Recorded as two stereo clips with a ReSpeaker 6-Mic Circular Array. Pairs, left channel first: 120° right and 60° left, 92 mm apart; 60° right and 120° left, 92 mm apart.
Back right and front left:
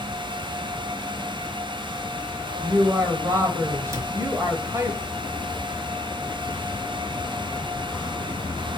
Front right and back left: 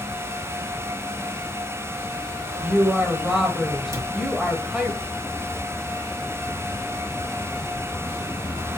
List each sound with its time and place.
2.6 s a woman speaking: 45° left, 1.0 m
3.9 s a cupboard door: 95° left, 0.8 m